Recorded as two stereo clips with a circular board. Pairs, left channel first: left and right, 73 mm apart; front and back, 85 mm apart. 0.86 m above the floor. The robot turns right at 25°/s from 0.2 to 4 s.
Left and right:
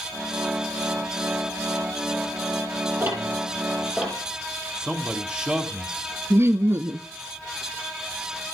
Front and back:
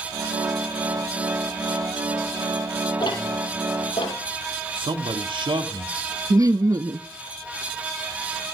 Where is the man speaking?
170° right, 1.6 m.